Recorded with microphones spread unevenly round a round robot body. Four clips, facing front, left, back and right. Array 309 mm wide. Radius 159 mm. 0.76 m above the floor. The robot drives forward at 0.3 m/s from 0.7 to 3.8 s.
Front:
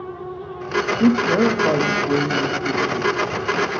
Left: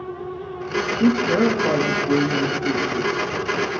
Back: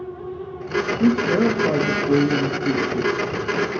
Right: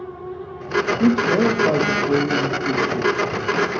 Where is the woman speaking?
40° right, 1.0 m; by 3.1 s 155° right, 1.0 m.